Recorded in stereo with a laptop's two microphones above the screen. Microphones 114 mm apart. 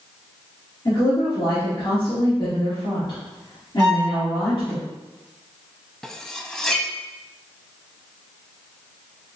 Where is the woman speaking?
40° left (ahead or behind), 1.8 m.